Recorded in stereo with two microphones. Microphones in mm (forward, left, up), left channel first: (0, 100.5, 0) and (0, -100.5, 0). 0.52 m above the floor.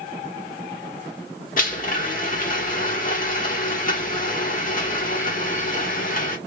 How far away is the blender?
About 1.1 m.